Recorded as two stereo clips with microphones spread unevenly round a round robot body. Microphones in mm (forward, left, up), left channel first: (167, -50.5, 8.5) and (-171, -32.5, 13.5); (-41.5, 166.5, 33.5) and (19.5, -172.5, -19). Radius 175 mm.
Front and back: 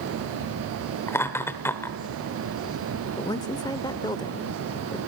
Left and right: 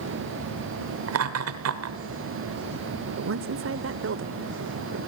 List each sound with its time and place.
1.1 s laughter: 85° right, 1.1 m
3.2 s a woman speaking: 75° right, 1.0 m